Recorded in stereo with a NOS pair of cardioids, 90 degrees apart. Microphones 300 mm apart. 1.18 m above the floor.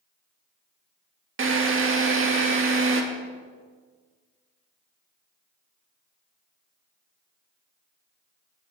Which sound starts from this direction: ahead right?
A drill, at 1.4 s.